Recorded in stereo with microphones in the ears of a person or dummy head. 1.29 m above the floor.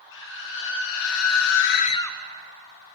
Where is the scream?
65° left (ahead or behind), 2 m; by 2.2 s centre (ahead or behind), 0.7 m.